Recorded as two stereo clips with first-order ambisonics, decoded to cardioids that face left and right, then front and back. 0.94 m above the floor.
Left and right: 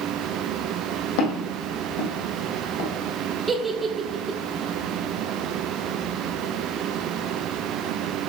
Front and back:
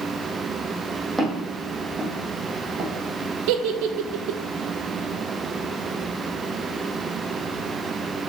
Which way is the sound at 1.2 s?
95° left.